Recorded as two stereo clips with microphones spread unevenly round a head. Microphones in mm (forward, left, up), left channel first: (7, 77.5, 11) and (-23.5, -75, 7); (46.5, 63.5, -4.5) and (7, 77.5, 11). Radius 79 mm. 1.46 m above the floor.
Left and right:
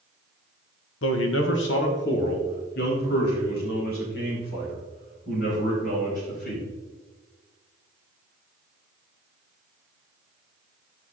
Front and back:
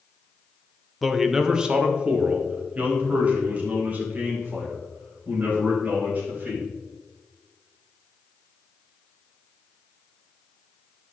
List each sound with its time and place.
1.0 s a man speaking: 70° left, 1.2 m; by 6.6 s 115° left, 8.5 m